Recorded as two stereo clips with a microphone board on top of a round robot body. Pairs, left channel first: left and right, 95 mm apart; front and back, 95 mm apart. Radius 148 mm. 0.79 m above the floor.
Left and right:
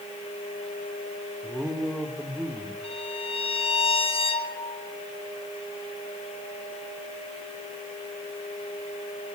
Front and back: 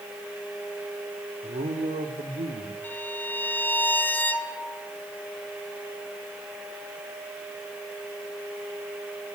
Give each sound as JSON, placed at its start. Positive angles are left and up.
{"t": 1.4, "sound": "a man speaking", "azimuth_deg": 180, "distance_m": 3.0}
{"t": 2.8, "sound": "a violin", "azimuth_deg": 75, "distance_m": 3.0}